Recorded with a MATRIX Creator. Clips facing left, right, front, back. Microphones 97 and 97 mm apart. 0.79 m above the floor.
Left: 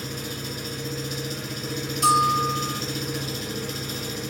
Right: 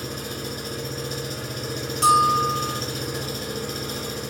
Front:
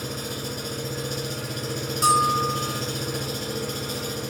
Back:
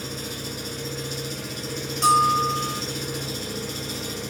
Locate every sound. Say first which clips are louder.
0.0 s an engine running: right 2 dB, front 2 dB; 40° right, 1.3 m
2.0 s a bell: right 2 dB, back 2 dB; 85° right, 2.0 m